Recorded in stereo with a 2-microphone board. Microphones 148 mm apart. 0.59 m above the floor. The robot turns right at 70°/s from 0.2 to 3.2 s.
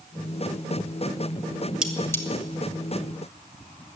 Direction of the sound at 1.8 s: 5° right (ahead or behind).